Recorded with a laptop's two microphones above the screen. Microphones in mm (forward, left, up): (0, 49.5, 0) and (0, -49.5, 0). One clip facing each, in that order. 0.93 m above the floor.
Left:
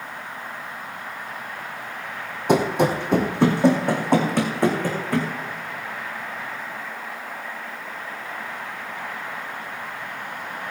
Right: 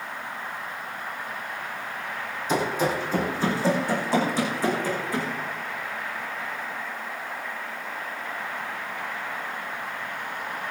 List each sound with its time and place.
2.5 s running footsteps: 65° left (ahead or behind), 2.5 m; by 5.3 s 60° left (ahead or behind), 4.5 m